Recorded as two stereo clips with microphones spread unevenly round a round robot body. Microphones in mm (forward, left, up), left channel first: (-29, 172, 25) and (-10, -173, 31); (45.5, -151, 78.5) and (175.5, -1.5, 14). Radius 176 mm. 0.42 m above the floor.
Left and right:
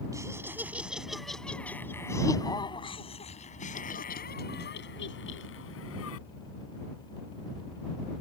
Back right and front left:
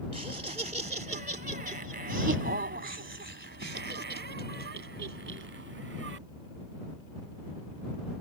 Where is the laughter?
5° right; by 6.2 s 40° left.